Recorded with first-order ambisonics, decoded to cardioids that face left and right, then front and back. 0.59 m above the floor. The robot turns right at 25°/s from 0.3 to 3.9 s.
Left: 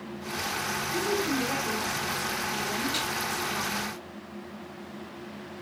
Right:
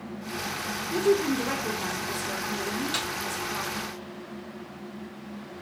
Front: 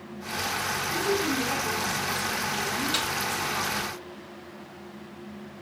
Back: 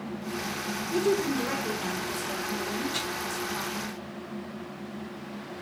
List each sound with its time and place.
0.9 s a woman speaking: 130° right, 1.3 m; by 3.9 s 60° right, 1.3 m
2.9 s a snare drum: 35° right, 2 m